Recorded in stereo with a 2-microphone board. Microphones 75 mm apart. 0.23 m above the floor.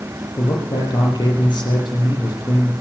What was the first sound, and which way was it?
A man speaking, 65° left (ahead or behind).